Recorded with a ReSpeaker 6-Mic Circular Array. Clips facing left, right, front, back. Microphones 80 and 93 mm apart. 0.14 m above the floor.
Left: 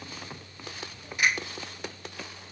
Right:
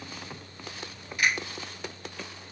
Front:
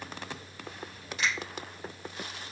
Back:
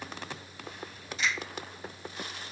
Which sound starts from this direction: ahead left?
A finger snap, at 1.2 s.